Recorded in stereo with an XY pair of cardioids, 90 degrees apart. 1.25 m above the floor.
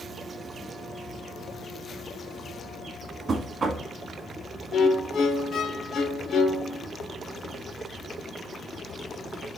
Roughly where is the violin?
Left.